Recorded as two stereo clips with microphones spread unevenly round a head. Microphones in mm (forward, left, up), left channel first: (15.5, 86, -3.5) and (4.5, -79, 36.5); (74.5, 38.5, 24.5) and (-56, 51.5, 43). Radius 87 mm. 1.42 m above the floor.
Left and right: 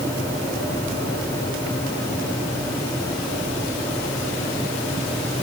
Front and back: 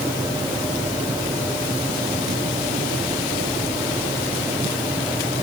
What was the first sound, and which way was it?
Only background noise.